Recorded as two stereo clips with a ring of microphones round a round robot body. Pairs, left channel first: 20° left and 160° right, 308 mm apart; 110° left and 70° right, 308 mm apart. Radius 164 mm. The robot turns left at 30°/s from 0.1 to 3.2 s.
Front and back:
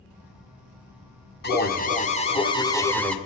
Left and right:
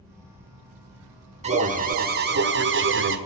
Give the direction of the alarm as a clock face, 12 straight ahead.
12 o'clock.